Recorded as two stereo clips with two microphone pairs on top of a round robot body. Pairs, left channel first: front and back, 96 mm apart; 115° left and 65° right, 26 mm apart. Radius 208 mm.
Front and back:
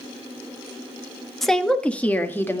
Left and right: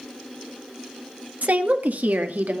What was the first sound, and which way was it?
A woman speaking, 85° right.